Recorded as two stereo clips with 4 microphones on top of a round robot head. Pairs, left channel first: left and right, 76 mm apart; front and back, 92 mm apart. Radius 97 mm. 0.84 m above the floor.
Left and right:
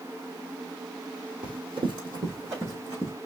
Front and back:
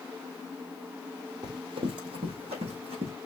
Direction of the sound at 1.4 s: 120° right.